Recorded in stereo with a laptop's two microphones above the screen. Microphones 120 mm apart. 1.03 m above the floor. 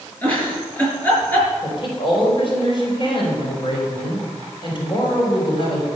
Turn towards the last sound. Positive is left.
turn(degrees=45)  # may be behind; listen again after turning